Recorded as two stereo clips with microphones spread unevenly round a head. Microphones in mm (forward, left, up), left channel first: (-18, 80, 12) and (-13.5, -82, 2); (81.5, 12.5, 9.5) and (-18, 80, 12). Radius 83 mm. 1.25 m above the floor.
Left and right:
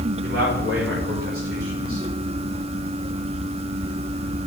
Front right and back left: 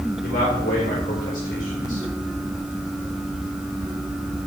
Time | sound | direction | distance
0.2 | a man speaking | 55° right | 5 m